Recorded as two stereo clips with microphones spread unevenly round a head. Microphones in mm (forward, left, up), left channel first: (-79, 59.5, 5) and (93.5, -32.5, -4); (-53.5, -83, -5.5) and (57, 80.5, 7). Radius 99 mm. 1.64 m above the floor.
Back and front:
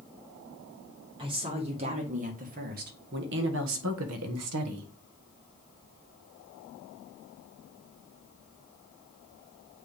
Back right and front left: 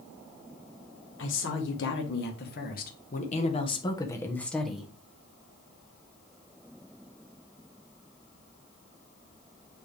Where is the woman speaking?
95° right, 2 m; by 4.9 s 30° right, 1.3 m.